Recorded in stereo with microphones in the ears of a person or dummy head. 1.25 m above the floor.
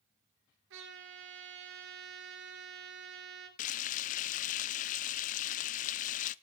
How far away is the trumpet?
About 4 m.